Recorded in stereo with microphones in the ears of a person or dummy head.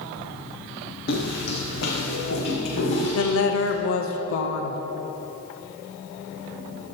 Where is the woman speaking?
90° left, 0.9 m.